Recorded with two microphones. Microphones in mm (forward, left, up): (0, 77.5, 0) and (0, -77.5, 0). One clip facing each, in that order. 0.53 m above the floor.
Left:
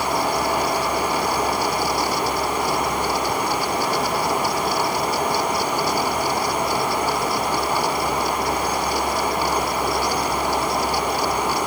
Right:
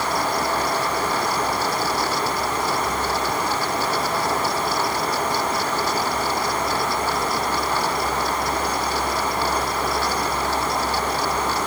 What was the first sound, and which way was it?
Only background noise.